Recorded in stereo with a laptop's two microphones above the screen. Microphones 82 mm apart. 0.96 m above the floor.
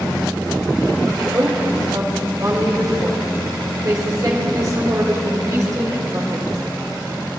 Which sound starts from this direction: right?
A woman speaking, at 1.1 s.